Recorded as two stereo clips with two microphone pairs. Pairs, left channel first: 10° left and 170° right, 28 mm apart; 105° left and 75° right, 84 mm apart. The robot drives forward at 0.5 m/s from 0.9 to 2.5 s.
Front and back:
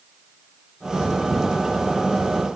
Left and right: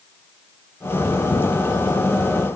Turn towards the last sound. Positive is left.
No sound to turn to.